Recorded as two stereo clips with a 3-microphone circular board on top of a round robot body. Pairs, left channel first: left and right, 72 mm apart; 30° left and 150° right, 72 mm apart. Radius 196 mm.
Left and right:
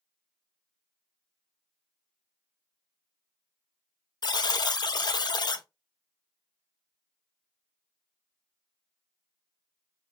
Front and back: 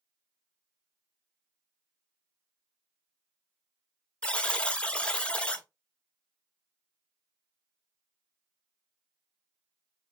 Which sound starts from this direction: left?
A buzzer, at 4.2 s.